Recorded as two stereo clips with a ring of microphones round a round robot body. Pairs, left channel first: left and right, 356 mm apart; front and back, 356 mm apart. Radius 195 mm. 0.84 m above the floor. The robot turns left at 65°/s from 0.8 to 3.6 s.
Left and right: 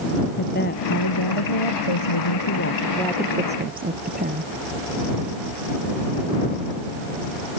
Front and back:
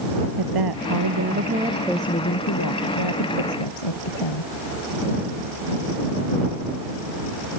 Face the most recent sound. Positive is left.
turn(degrees=-25)